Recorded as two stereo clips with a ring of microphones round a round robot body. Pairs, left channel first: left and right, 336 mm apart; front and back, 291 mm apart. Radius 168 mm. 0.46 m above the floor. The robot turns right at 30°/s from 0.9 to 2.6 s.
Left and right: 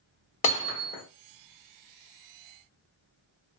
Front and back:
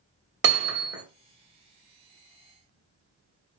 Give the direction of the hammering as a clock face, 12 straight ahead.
7 o'clock.